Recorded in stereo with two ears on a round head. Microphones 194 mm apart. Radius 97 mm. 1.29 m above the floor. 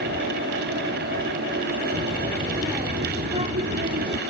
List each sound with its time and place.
1.9 s a child speaking: 5° right (ahead or behind); by 4.2 s 50° right (ahead or behind)